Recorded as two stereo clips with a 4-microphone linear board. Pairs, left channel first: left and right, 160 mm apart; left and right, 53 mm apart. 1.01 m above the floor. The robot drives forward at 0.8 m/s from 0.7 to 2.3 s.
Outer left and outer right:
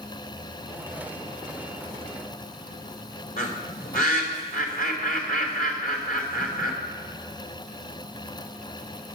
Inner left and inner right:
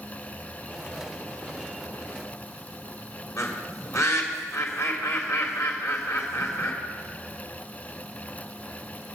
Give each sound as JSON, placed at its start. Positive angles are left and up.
{"t": 3.4, "sound": "a bird", "side_deg": 65, "distance_m": 2.5}